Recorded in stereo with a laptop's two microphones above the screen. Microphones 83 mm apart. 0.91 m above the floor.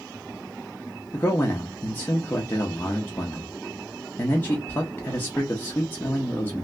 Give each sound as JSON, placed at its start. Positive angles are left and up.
{"t": 1.1, "sound": "a man speaking", "side_deg": 25, "distance_m": 0.7}